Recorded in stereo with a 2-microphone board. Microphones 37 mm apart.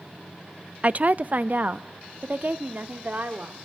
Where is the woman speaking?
40° right (ahead or behind), 0.5 m; by 3.5 s 50° right (ahead or behind), 3.5 m.